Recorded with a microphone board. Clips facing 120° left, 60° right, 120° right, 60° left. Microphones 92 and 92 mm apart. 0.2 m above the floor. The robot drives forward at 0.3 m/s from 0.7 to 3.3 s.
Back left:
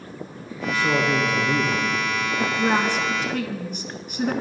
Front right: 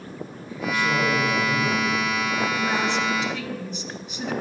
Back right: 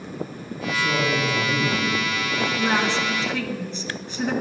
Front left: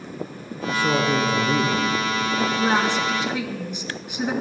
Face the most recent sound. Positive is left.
turn(degrees=135)